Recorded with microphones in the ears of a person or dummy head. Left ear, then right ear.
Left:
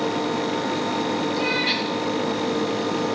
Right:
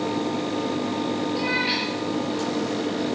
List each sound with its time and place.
1.3 s a cat meowing: 50° left (ahead or behind), 6.5 m